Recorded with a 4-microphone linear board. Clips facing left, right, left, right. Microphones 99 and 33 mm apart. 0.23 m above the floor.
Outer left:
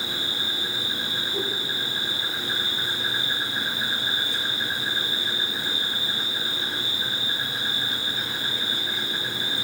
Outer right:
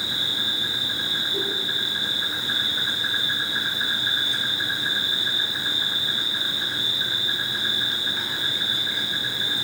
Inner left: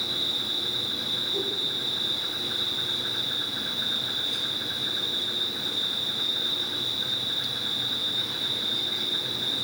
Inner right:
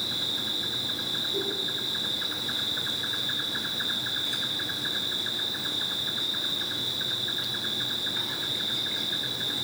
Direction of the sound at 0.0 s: 65° right (ahead or behind).